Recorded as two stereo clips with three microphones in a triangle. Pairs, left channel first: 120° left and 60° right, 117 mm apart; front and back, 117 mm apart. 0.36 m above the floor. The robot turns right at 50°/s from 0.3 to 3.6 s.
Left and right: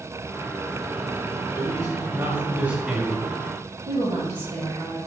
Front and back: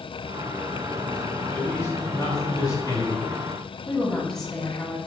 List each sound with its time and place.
1.5 s a man speaking: 55° right, 1.4 m; by 3.4 s 40° left, 1.4 m
3.9 s a woman speaking: 85° right, 2.5 m